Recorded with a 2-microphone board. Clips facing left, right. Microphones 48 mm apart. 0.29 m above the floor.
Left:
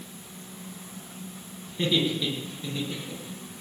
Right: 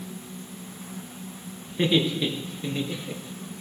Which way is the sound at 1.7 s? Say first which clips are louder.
Right 3 dB; 30° right (ahead or behind).